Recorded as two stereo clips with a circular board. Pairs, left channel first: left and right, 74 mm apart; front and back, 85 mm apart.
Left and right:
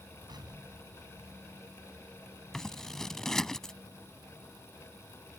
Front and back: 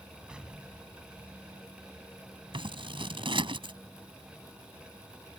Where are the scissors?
175° left.